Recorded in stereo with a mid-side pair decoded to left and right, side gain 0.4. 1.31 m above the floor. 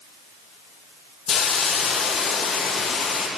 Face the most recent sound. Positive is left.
turn(degrees=60)